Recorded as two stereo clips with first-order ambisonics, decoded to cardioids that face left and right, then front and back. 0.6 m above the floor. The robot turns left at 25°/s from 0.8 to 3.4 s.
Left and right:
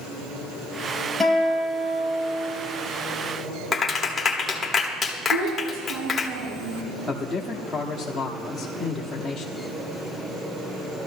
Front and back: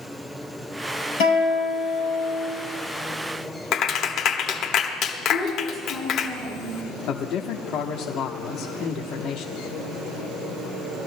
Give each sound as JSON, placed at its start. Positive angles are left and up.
{"t": 1.2, "sound": "a guitar", "azimuth_deg": 0, "distance_m": 6.5}
{"t": 3.7, "sound": "a clap", "azimuth_deg": 20, "distance_m": 1.2}
{"t": 5.3, "sound": "a child speaking", "azimuth_deg": -85, "distance_m": 6.0}
{"t": 7.1, "sound": "a man speaking", "azimuth_deg": 5, "distance_m": 1.0}